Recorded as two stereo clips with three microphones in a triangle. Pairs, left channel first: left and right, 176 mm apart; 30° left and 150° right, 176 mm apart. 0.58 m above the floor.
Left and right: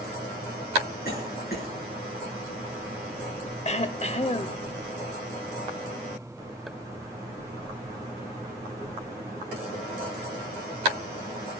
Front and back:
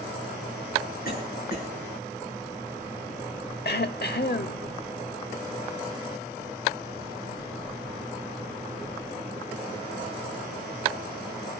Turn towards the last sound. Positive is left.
turn(degrees=45)